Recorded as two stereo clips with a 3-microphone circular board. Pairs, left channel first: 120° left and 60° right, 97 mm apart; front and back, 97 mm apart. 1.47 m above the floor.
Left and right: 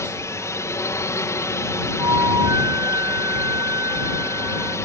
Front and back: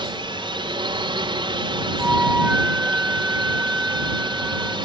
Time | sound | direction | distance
0.0 | a drone | 175° left | ?
2.0 | a flute | 105° right | ?